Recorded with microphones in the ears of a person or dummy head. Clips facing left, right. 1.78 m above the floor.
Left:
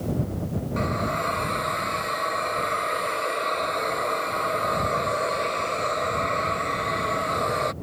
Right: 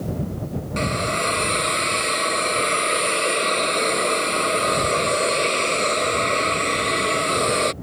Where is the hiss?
50° right (ahead or behind).